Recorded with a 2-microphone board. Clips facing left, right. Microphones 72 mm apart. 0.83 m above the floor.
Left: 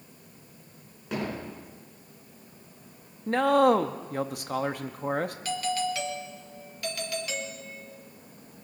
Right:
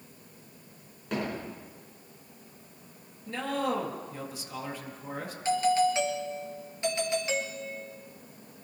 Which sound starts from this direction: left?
A man speaking, at 3.3 s.